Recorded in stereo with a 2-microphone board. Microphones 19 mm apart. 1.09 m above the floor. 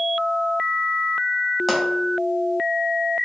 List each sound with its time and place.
1.7 s a pop: 5° right (ahead or behind), 1.2 m